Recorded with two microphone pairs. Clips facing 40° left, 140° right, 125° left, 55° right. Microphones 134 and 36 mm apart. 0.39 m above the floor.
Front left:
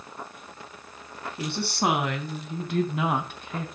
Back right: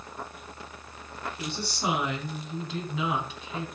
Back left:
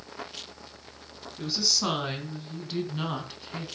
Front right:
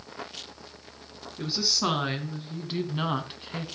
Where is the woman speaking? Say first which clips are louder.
Front left 7 dB, front right 1 dB; 20° left, 4.5 m; by 3.7 s 10° left, 3.5 m.